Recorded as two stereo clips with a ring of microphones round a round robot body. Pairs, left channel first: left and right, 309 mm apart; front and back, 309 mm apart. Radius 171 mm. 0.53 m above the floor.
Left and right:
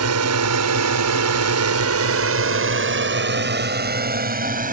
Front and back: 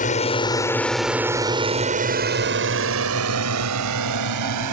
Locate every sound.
0.0 s a drone: 60° right; by 4.7 s 150° right